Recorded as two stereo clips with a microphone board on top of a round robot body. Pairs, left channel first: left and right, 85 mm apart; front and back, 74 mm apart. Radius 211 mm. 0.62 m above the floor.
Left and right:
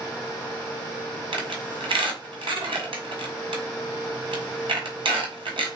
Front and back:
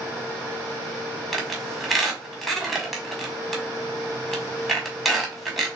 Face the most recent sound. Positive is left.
turn(degrees=-90)